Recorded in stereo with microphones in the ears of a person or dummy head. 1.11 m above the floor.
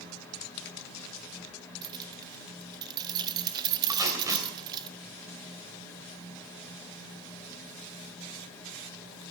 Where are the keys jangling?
25° right (ahead or behind), 0.6 m.